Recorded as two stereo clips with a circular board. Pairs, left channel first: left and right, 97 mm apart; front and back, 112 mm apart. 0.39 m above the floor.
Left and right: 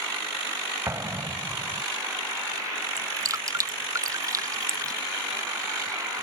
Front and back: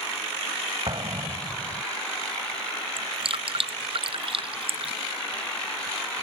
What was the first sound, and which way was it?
An explosion, 145° right.